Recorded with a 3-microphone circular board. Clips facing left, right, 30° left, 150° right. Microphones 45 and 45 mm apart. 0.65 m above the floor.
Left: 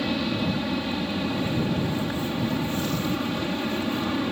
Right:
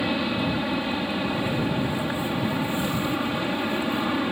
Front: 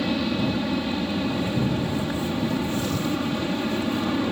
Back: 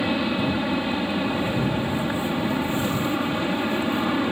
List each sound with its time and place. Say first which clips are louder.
0.0 s an aircraft: right 1 dB, back 1 dB; 130° right